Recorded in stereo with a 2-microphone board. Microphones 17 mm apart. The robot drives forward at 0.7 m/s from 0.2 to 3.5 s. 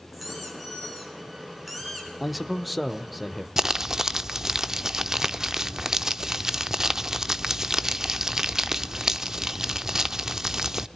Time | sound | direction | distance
0.1 | a squeak | 10° right (ahead or behind) | 7 m
2.2 | a man speaking | 10° right (ahead or behind) | 0.8 m
3.6 | crumpling | 35° right (ahead or behind) | 0.6 m